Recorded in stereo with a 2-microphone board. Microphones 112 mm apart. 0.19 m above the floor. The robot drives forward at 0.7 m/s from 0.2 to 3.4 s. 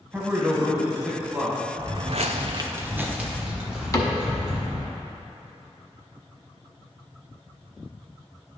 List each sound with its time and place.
0.1 s a man speaking: 15° right (ahead or behind), 1.2 m; by 1.7 s 10° right (ahead or behind), 1.8 m
1.8 s footsteps: 35° right (ahead or behind), 1.0 m; by 4.9 s centre (ahead or behind), 3.5 m
3.9 s a cupboard door: 30° left (ahead or behind), 0.8 m